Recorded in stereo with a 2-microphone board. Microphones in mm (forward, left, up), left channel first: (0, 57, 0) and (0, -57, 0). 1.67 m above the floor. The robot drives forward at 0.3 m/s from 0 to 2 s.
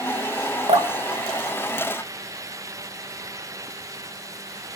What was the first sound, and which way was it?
Dripping, 70° right (ahead or behind).